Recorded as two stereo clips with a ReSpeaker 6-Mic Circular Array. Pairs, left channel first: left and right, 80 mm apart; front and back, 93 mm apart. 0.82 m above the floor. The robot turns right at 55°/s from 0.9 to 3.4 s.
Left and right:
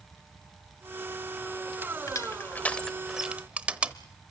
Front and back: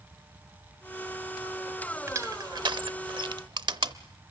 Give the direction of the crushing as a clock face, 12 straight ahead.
8 o'clock.